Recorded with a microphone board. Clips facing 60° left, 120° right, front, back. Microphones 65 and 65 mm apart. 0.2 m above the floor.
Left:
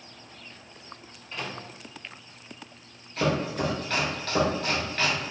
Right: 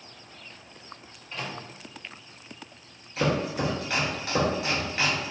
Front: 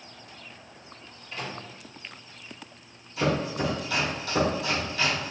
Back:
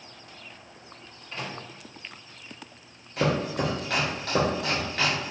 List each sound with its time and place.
1.3 s a microwave: 150° left, 1.4 m
3.2 s chopping: 160° left, 1.1 m